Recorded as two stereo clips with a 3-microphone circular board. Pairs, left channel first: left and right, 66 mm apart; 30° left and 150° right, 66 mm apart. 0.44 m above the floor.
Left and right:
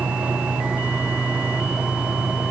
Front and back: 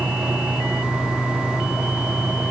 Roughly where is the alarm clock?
No alarm clock in this recording.